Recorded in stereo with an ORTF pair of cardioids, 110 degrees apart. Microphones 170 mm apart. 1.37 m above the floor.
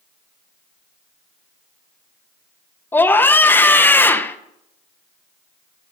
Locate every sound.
2.9 s a scream: 10° left, 1.0 m